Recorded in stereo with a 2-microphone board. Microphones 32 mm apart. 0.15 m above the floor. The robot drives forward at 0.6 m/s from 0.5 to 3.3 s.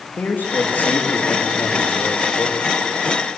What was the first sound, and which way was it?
A man speaking, 65° left (ahead or behind).